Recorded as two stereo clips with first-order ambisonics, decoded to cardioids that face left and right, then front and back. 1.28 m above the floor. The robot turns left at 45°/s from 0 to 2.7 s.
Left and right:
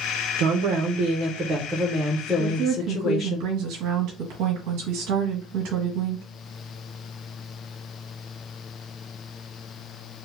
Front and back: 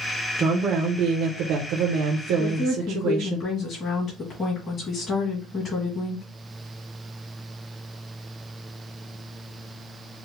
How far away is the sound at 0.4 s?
About 0.7 m.